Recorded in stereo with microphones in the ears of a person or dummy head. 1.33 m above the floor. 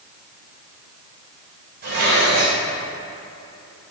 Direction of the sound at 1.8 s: 50° right (ahead or behind).